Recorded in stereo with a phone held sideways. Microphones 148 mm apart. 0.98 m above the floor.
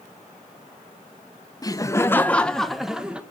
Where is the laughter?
25° left (ahead or behind), 0.7 m; by 3.2 s 10° right (ahead or behind), 1.0 m.